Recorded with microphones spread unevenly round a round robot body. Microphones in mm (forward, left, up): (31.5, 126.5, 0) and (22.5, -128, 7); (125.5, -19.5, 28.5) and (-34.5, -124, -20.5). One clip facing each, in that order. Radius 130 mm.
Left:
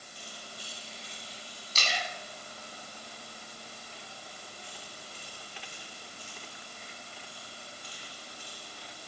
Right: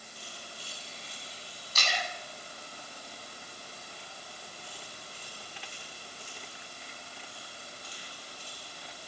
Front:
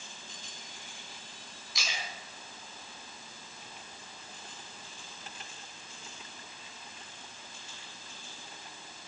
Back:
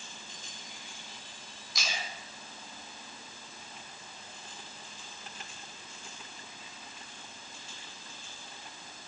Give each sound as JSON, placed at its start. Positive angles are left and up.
{"t": 1.8, "sound": "a splash", "azimuth_deg": 155, "distance_m": 1.6}